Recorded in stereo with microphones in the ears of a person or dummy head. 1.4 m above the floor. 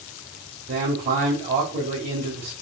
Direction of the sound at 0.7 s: 35° right (ahead or behind).